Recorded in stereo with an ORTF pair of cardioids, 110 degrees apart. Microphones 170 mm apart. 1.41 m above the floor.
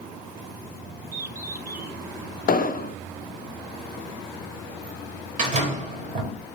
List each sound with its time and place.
1.1 s a bird: 10° right, 1.8 m
2.5 s an explosion: 55° left, 0.6 m
5.4 s a door slam: 50° right, 4.5 m